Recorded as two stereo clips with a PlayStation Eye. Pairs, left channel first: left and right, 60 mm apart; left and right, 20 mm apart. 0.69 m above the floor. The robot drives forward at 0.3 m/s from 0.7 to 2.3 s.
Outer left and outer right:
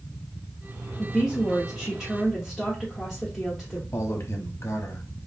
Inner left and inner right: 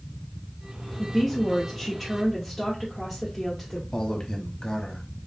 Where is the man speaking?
45° left (ahead or behind), 1.1 m.